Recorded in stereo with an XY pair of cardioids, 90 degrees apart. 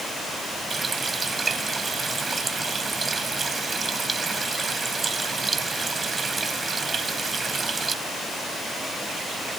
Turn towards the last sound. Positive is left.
turn(degrees=-40)